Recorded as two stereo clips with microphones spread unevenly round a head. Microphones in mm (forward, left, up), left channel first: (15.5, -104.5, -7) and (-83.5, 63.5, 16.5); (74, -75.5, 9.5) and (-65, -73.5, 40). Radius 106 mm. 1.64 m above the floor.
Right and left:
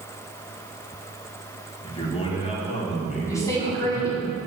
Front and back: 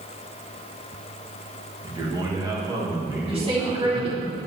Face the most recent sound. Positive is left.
turn(degrees=-135)